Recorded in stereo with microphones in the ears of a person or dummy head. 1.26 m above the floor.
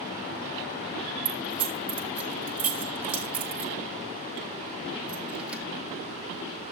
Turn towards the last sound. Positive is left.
turn(degrees=-10)  # may be behind; listen again after turning